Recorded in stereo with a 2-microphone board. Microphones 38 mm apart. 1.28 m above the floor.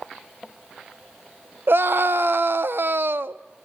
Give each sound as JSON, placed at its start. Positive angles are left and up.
{"t": 1.7, "sound": "a scream", "side_deg": -70, "distance_m": 0.8}